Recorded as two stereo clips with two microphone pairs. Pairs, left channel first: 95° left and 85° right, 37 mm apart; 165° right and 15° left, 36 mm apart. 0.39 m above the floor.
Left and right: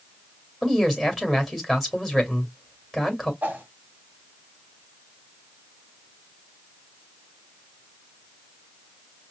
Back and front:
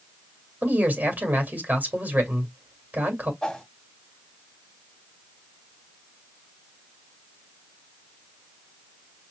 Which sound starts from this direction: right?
A whoosh, at 3.4 s.